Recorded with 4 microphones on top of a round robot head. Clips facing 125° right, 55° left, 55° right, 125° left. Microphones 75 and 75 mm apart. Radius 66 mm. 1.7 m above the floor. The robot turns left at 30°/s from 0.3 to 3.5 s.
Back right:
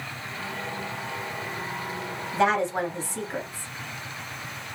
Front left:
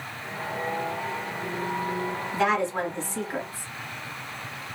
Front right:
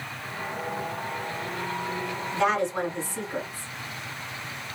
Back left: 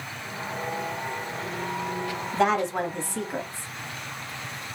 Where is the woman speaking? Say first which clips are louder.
Back right 2 dB, back left 1 dB; 175° left, 1.4 m; by 3.7 s 140° left, 1.4 m.